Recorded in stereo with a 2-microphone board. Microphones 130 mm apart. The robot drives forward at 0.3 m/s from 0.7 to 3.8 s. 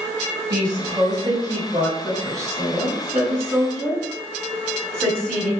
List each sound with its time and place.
0.5 s a woman speaking: 35° right (ahead or behind), 2.5 m; by 5.5 s 25° right (ahead or behind), 3 m